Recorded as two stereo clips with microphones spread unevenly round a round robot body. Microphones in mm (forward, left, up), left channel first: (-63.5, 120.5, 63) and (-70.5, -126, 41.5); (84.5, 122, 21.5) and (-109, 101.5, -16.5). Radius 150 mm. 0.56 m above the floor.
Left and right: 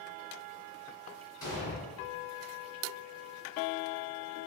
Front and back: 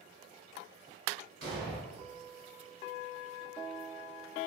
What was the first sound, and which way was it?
An explosion, 165° left.